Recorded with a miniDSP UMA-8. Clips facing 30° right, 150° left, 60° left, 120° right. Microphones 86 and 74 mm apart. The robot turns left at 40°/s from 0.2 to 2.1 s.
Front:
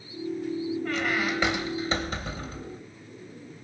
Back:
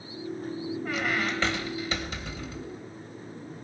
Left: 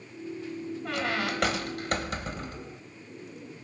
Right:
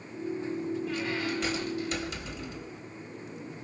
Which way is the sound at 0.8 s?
70° left.